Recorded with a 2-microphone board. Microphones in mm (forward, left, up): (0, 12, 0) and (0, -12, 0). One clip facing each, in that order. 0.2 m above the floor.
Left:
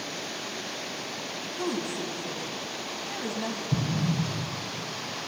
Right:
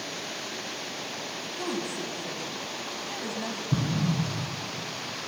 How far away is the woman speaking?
About 1.1 m.